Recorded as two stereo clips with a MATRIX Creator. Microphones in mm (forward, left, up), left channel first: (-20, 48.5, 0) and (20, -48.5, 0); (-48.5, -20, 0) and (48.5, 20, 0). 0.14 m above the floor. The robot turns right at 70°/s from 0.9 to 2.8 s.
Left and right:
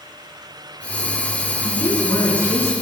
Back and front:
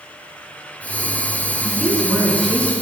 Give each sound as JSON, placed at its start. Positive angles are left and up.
{"t": 1.6, "sound": "a woman speaking", "azimuth_deg": 70, "distance_m": 1.7}